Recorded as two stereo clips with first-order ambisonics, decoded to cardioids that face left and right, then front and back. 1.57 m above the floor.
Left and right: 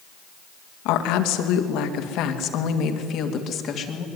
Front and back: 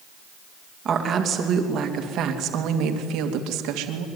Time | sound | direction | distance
0.8 | a woman speaking | 115° left | 2.5 m